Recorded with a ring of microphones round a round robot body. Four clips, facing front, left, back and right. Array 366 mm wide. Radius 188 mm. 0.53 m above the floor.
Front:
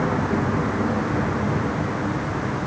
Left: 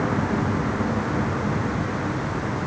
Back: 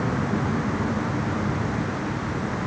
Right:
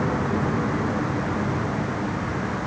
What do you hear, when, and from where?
Only background noise.